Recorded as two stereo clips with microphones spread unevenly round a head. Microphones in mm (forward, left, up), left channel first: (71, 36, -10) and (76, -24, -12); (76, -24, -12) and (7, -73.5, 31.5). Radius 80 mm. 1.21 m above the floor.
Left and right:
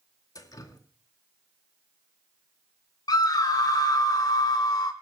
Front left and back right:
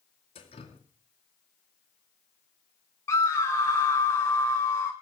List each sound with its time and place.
0.3 s dripping: 75° left, 1.8 m
3.1 s a scream: 95° left, 2.0 m